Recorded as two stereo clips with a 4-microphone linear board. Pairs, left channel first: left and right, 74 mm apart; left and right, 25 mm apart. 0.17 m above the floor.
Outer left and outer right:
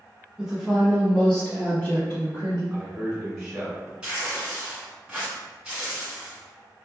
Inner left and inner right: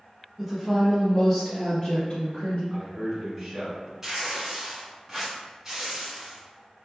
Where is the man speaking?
5° right (ahead or behind), 1.5 m.